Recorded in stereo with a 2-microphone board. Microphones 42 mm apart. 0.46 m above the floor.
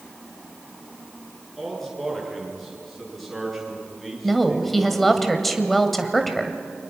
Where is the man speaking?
5° left (ahead or behind), 7.5 m.